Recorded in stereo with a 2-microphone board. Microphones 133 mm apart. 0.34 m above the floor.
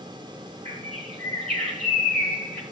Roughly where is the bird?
Right.